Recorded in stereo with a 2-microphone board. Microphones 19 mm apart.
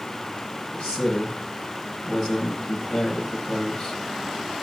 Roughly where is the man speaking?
Left.